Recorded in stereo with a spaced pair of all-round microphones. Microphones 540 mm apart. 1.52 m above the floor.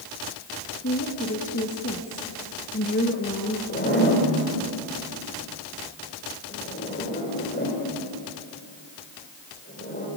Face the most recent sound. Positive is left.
turn(degrees=20)  # may be behind; listen again after turning